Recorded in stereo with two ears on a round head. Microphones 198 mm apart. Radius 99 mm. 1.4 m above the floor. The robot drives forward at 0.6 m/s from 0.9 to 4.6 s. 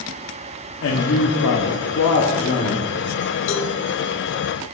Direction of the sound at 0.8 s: 60° left (ahead or behind).